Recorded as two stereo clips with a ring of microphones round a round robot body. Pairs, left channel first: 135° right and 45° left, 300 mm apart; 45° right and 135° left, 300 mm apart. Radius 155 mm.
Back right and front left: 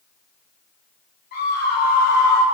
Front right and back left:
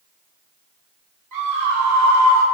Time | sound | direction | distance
1.3 | a scream | 165° left | 4.5 m